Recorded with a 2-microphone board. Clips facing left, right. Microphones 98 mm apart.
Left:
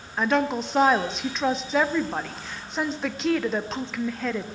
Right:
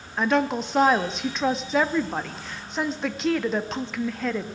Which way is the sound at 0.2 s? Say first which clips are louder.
Right 1 dB; centre (ahead or behind).